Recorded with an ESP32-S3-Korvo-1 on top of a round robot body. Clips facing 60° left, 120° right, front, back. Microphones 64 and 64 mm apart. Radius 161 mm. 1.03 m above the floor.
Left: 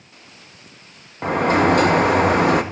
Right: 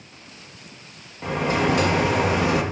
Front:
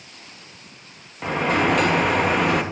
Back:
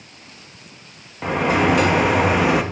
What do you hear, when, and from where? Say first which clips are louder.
1.2 s a sliding door: left 6 dB, back 2 dB; 95° left, 0.6 m